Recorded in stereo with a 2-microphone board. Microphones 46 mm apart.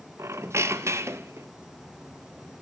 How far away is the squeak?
About 0.9 m.